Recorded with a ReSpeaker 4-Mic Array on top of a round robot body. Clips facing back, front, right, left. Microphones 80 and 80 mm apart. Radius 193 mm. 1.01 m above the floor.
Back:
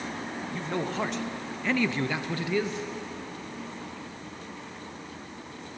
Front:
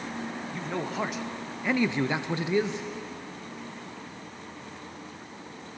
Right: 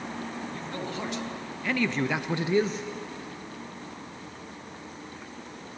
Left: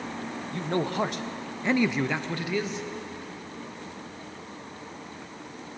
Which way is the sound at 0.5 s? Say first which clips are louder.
Back 2 dB, left 7 dB; 90° left.